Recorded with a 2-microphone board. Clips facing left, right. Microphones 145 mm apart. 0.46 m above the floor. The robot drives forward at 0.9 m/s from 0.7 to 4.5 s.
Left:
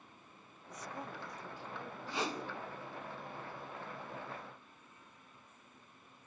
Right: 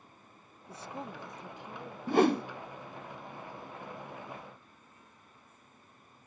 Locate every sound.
0.7 s a woman speaking: 30° right (ahead or behind), 0.8 m; by 2.0 s 15° right (ahead or behind), 1.6 m
2.1 s a whoosh: 55° right (ahead or behind), 0.7 m; by 2.4 s 70° right (ahead or behind), 0.7 m